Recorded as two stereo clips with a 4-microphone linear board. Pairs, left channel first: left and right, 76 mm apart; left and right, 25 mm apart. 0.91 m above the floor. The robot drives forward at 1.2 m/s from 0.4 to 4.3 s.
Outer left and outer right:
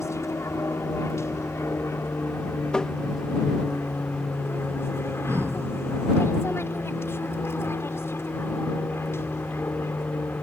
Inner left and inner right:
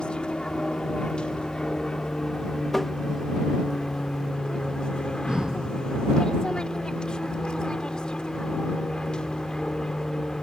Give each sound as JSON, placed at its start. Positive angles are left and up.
{"t": 0.0, "sound": "an aircraft", "side_deg": 40}
{"t": 2.7, "sound": "tapping", "side_deg": 10}
{"t": 5.3, "sound": "breathing", "side_deg": -35}